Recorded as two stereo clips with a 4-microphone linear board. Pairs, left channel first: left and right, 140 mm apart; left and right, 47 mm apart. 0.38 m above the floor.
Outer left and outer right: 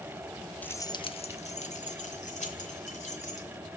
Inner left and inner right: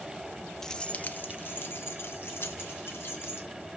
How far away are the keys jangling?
About 0.6 m.